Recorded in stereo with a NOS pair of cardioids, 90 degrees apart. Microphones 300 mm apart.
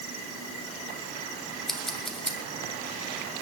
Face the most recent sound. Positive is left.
turn(degrees=0)